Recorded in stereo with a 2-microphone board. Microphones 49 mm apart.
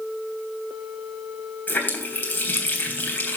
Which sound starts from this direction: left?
A running tap, at 1.7 s.